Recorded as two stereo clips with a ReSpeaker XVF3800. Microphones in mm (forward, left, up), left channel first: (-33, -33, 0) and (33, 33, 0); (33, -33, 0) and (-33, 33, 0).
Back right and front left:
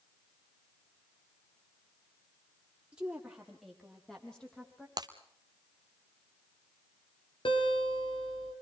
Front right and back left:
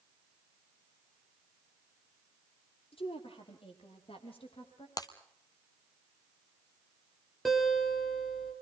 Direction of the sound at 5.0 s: Straight ahead.